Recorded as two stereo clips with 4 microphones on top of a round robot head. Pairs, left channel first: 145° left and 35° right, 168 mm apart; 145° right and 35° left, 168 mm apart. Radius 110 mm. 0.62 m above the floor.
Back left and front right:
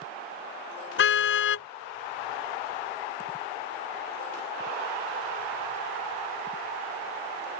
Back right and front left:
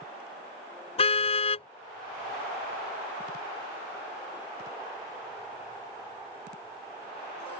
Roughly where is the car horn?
Behind.